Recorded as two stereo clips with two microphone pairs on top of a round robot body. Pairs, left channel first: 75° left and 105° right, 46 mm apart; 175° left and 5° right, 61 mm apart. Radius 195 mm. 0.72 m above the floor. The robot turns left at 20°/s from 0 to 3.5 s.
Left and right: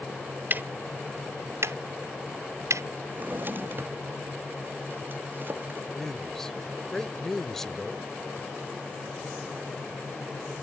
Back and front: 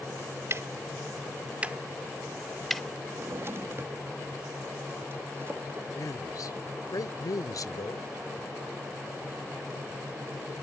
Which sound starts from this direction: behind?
A man speaking, at 5.9 s.